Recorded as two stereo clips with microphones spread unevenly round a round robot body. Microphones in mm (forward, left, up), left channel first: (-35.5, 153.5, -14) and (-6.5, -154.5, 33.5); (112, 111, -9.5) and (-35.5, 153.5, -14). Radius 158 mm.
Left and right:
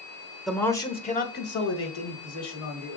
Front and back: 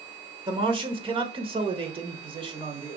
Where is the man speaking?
170° left, 0.8 m; by 3.0 s 110° left, 1.7 m.